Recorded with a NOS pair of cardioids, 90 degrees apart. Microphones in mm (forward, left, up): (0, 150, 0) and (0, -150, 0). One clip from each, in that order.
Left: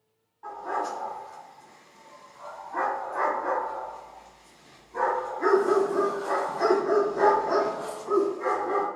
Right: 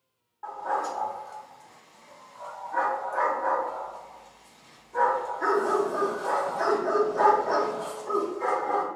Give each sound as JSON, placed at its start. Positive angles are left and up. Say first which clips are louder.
{"t": 0.4, "sound": "a dog barking", "louder": "right 1 dB", "azimuth_deg": -40, "distance_m": 2.0}